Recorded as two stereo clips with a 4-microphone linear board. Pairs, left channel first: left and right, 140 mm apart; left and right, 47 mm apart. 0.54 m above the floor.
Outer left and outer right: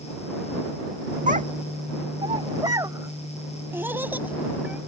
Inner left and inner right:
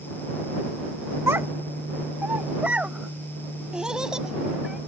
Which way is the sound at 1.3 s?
65° right (ahead or behind).